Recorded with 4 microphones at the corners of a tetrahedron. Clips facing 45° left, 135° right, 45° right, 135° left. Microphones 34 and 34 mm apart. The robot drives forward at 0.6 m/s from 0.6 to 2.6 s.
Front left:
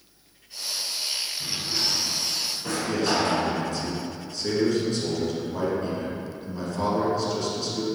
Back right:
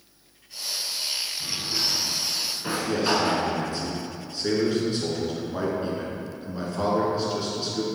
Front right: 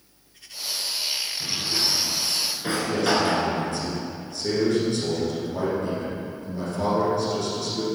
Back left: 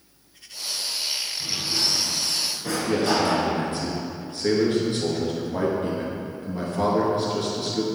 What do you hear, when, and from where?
1.4 s a drawer: 35° right, 1.2 m; by 3.5 s 75° right, 0.9 m
2.9 s a man speaking: 165° left, 1.9 m